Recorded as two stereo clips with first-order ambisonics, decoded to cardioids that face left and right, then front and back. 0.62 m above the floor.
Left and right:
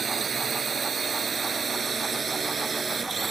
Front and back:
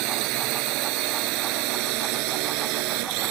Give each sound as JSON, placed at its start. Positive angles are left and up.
{"t": 0.0, "sound": "a drone", "azimuth_deg": -160}